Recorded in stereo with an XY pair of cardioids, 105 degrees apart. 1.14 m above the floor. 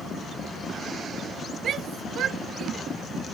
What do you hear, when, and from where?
1.6 s a shout: 60° right